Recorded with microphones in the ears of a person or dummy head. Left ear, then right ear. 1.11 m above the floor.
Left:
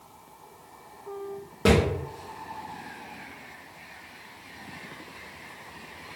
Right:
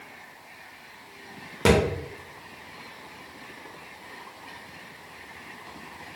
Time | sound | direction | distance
1.6 | a thud | 25° right (ahead or behind) | 0.9 m